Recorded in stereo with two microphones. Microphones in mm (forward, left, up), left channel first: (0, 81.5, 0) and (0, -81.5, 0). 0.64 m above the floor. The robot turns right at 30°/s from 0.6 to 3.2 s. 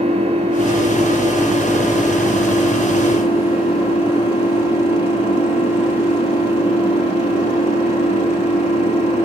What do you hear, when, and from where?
0.0 s an engine running: 40° right, 8 m; by 9.3 s 40° left, 8 m